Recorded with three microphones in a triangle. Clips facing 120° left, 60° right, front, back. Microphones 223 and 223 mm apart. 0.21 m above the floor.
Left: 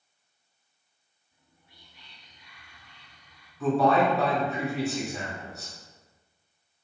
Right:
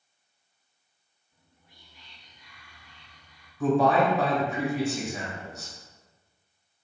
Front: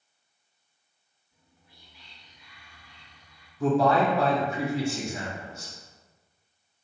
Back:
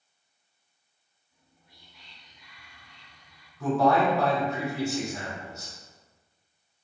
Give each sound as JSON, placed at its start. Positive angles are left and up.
{"t": 1.3, "sound": "whispering", "azimuth_deg": 85, "distance_m": 1.4}
{"t": 3.6, "sound": "a man speaking", "azimuth_deg": -25, "distance_m": 1.0}